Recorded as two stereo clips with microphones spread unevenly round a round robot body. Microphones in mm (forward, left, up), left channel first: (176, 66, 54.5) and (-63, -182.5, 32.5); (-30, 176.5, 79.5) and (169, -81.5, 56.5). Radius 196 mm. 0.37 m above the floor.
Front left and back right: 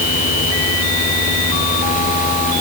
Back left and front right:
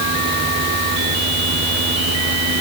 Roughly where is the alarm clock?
No alarm clock in this recording.